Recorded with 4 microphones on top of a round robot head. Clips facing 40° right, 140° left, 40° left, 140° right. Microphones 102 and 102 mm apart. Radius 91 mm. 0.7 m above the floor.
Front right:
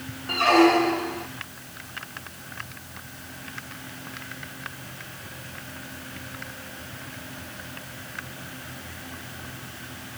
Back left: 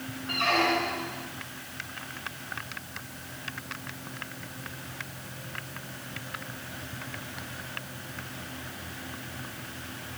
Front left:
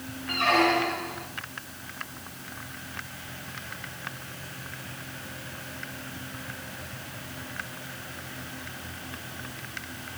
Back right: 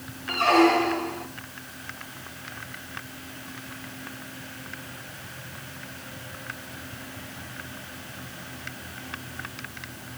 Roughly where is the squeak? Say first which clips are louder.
Front right 9 dB, back right 4 dB; right.